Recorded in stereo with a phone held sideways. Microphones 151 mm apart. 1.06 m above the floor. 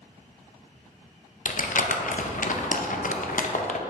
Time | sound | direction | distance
1.4 | crumpling | 60° left (ahead or behind) | 0.5 m